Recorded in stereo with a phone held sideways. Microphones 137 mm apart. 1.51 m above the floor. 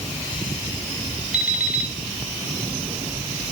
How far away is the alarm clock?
About 2 m.